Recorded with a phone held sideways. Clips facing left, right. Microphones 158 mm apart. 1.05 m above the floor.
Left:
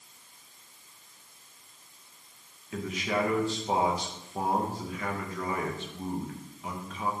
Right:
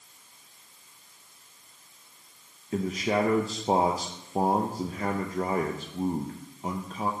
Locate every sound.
2.7 s a man speaking: 40° right (ahead or behind), 0.6 m